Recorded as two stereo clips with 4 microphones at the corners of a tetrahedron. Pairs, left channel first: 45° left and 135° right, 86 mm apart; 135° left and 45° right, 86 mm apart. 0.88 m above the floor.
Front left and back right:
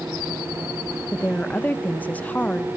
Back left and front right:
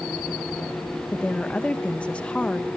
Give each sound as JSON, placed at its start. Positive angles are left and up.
{"t": 1.1, "sound": "a woman speaking", "azimuth_deg": 85, "distance_m": 0.6}